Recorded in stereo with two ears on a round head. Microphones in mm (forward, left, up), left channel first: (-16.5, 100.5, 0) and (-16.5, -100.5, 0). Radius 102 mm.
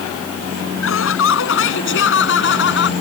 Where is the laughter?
55° left (ahead or behind); by 2.9 s 50° left (ahead or behind).